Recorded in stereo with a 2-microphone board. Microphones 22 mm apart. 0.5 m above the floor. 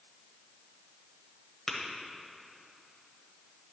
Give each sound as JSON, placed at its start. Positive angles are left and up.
{"t": 1.7, "sound": "tapping", "side_deg": 15, "distance_m": 1.2}